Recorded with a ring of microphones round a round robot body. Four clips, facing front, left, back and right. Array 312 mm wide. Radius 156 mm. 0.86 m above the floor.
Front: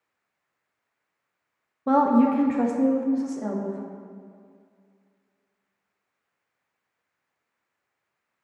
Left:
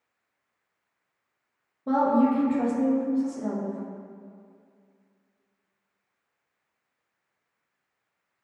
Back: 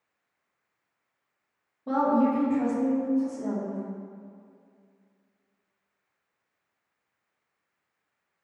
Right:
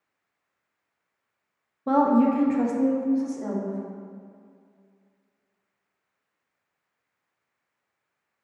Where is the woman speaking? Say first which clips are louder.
Right 2 dB, front 4 dB; 25° right, 1.1 m; by 3.8 s 5° right, 2 m.